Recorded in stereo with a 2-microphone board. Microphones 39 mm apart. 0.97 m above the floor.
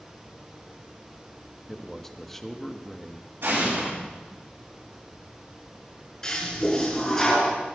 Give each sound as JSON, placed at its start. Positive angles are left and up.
{"t": 1.7, "sound": "a man speaking", "side_deg": 10, "distance_m": 1.0}
{"t": 3.4, "sound": "an explosion", "side_deg": -70, "distance_m": 8.0}
{"t": 6.2, "sound": "a toilet flushing", "side_deg": 20, "distance_m": 4.5}